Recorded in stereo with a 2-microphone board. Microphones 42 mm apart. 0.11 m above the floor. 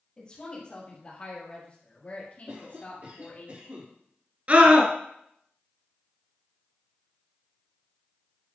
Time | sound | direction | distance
0.2 | a woman speaking | 20° left (ahead or behind) | 3 m
2.5 | a cough | 50° right (ahead or behind) | 3 m
4.5 | a scream | 30° right (ahead or behind) | 1.5 m